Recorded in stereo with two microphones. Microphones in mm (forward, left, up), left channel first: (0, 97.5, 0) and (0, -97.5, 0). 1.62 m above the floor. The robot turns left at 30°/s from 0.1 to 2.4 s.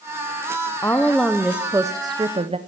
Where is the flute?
I don't hear a flute.